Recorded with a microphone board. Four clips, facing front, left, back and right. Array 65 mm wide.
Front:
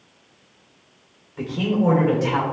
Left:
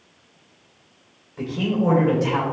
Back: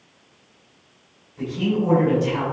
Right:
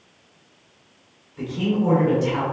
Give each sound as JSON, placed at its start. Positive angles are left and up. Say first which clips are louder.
{"t": 1.4, "sound": "a man speaking", "louder": "even, front 1 dB", "azimuth_deg": 5, "distance_m": 3.0}